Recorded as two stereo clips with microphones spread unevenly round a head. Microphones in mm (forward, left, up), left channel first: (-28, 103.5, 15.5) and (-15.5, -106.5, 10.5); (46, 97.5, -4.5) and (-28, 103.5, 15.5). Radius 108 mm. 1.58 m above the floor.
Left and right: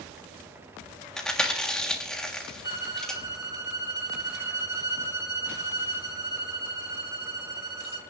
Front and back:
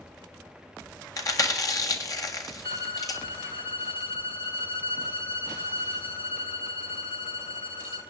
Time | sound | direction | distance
1.2 | chewing | 10° left | 1.6 m
2.6 | a violin | 10° right | 1.6 m